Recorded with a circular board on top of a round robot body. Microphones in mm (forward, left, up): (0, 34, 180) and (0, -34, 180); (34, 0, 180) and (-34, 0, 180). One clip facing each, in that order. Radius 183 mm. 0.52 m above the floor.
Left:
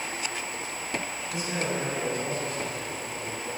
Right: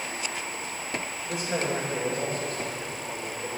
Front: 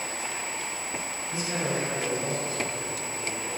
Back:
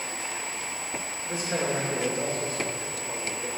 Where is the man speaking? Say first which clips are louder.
Right 2 dB, back 2 dB; 135° right, 3.5 m.